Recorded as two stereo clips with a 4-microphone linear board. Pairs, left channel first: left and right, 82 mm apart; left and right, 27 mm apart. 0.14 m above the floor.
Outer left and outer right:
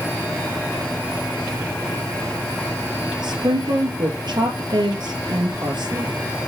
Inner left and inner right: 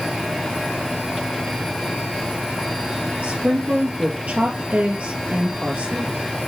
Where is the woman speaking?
60° right (ahead or behind), 3 m.